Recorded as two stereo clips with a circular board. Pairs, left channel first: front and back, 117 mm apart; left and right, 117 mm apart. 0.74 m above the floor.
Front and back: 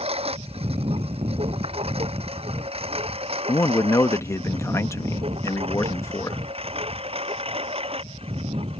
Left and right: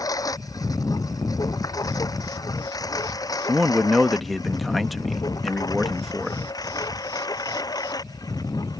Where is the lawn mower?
150° left; by 8.8 s 145° left.